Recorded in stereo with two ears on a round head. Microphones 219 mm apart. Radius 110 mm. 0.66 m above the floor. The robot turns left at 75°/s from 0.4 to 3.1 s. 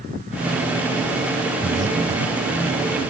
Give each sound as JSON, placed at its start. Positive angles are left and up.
{"t": 1.6, "sound": "breathing", "side_deg": -20, "distance_m": 0.6}